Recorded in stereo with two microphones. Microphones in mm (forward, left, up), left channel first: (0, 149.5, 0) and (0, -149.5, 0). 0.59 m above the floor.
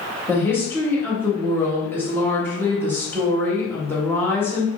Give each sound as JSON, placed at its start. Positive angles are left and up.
{"t": 0.3, "sound": "a woman speaking", "side_deg": 5, "distance_m": 1.1}